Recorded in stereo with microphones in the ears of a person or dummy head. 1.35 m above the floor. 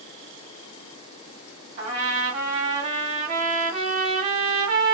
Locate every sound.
1.8 s a trumpet: 40° right (ahead or behind), 1.4 m